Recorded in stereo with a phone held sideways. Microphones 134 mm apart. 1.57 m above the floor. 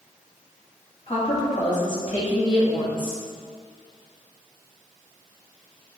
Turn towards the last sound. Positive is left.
turn(degrees=75)  # may be behind; listen again after turning